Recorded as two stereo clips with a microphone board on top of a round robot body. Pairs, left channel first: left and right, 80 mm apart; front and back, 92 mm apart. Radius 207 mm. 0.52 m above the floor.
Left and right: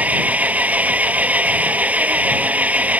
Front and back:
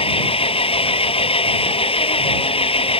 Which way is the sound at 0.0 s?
20° right.